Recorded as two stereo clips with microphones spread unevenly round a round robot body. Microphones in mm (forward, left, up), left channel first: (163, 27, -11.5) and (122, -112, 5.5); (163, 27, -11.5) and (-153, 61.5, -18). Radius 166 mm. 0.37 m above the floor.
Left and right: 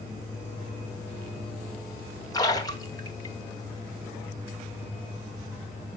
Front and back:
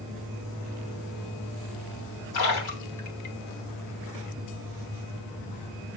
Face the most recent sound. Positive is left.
turn(degrees=15)